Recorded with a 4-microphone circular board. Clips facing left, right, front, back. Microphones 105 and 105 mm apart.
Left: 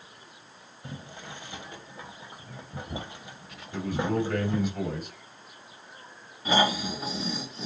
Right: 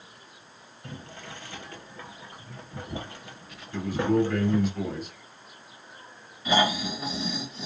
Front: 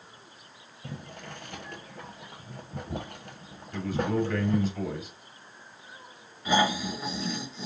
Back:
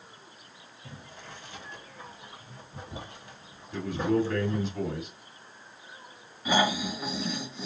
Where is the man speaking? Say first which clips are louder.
Right 4 dB, back 1 dB; 115° left, 3 m.